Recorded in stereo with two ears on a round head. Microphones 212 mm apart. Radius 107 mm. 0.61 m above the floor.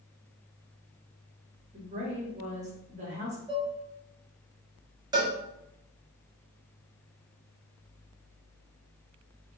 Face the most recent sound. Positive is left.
turn(degrees=-15)  # may be behind; listen again after turning